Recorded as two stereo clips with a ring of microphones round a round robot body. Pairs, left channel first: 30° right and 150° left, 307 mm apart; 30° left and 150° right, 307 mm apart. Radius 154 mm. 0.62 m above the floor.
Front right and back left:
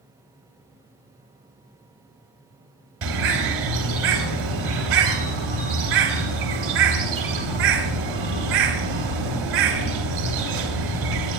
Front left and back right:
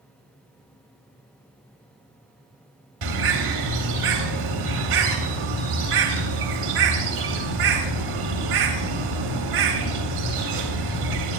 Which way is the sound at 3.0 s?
160° right.